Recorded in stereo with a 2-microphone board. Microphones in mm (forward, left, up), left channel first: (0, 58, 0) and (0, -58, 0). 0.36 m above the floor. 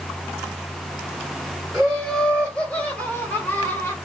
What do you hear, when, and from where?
1.7 s laughter: 5° left (ahead or behind), 1.4 m; by 4.0 s 20° left (ahead or behind), 1.4 m